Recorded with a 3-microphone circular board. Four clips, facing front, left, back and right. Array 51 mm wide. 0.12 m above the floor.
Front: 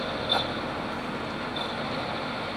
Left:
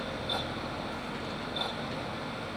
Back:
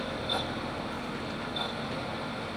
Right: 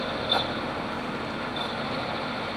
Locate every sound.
Only background noise.